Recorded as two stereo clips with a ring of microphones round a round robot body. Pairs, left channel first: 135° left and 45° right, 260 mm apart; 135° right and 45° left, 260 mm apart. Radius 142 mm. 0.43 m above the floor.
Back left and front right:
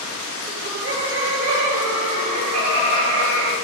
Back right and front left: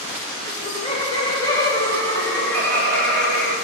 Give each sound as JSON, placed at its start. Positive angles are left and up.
{"t": 0.5, "sound": "laughter", "azimuth_deg": -80, "distance_m": 2.0}